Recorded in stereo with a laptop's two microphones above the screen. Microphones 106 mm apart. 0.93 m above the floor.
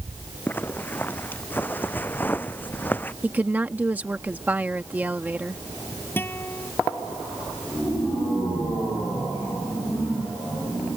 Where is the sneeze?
I don't hear a sneeze.